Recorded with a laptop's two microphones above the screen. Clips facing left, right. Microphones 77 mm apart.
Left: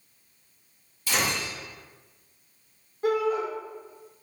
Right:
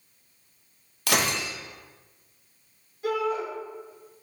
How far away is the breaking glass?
About 0.6 m.